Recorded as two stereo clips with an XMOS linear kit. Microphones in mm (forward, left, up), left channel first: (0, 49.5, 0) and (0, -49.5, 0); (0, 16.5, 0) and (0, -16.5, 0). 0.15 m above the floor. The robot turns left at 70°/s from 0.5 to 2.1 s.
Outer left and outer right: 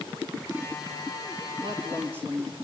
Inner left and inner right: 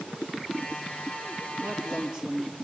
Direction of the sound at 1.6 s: 120° right.